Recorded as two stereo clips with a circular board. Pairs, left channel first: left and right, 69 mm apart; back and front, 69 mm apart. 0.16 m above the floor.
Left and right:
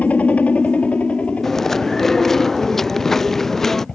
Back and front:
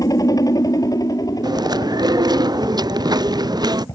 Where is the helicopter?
160° left; by 4.0 s 165° left.